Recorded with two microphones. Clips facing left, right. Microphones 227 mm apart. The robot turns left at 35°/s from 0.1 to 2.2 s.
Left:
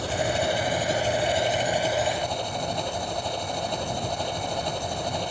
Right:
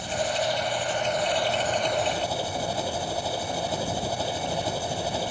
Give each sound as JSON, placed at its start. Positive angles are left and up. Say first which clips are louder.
{"t": 0.0, "sound": "an engine running", "louder": "left 2 dB", "azimuth_deg": 70}